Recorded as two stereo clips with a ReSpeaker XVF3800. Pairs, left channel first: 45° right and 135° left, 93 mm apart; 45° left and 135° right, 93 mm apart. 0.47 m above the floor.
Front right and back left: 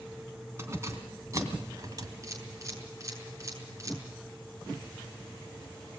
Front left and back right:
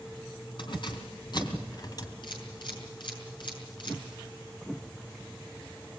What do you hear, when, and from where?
0.6 s keys jangling: 75° left, 3.5 m; by 2.1 s 90° left, 2.5 m
2.2 s a camera shutter: 80° left, 6.5 m